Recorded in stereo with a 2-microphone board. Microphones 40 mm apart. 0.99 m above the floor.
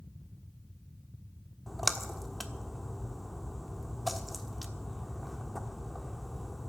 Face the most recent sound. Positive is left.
turn(degrees=0)  # may be behind; listen again after turning